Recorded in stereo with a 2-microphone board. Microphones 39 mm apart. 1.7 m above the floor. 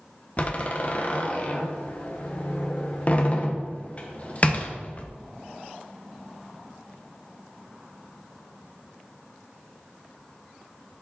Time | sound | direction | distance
0.4 | a door slam | 40° left (ahead or behind) | 0.9 m